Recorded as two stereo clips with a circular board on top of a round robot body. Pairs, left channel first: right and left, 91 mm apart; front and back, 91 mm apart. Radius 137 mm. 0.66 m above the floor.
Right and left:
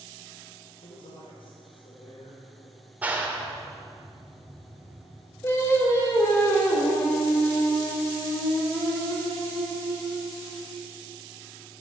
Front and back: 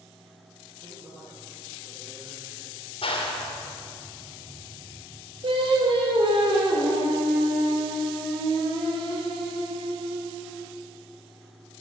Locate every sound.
0.8 s a man speaking: 110° right, 3.5 m
3.0 s a clap: 15° left, 1.9 m
5.4 s singing: 155° right, 3.5 m